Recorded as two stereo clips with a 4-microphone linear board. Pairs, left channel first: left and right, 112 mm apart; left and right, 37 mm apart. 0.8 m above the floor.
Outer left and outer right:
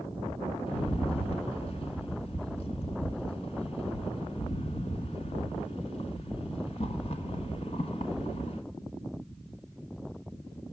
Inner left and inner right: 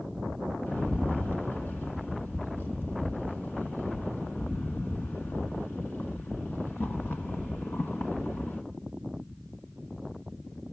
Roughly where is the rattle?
Left.